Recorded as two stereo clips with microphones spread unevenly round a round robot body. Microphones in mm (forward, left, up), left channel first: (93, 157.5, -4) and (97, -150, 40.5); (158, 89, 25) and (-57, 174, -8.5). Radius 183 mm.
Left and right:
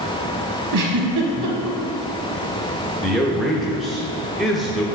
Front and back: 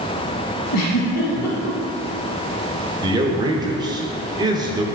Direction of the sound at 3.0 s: 160° left.